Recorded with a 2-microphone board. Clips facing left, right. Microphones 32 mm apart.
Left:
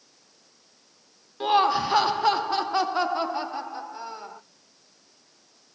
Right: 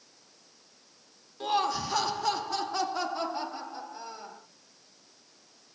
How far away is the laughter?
About 0.6 m.